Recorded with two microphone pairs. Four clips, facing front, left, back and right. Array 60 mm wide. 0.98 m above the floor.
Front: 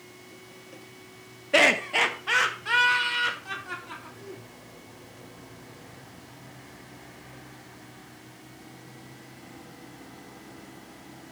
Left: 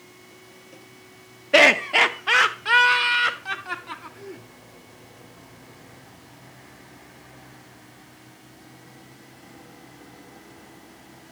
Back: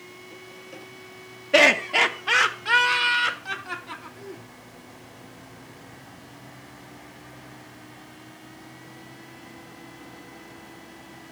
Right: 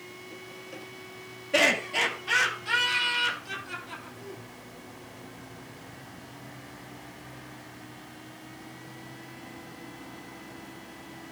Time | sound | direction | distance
1.5 | laughter | 95° left | 0.6 m